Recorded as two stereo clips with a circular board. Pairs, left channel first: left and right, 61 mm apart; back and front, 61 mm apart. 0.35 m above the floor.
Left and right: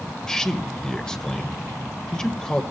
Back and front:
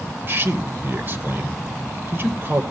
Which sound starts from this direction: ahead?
A man speaking, at 0.3 s.